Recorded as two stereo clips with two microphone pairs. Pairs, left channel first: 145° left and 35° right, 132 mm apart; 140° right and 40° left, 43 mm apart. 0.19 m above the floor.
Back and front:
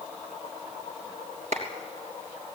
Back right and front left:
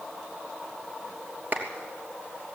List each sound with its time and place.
1.5 s a clap: 5° right, 3 m